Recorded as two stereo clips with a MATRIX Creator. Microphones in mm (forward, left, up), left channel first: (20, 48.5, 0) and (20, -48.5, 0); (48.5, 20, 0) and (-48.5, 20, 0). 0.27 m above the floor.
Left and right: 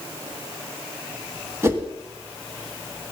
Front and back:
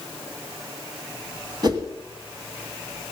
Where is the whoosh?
150° right, 2 m.